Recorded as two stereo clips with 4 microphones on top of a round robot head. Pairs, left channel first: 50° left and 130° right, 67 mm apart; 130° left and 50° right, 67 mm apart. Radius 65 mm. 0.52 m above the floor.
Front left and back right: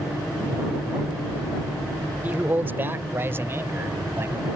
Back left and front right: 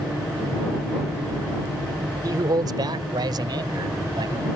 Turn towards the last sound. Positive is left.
turn(degrees=-75)